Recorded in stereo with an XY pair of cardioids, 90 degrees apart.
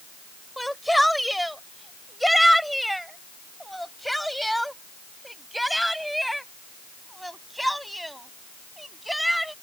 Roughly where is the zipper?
No zipper in this recording.